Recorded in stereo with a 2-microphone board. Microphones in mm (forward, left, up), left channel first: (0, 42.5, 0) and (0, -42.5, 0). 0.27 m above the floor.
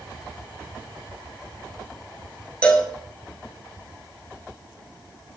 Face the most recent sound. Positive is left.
turn(degrees=15)  # may be behind; listen again after turning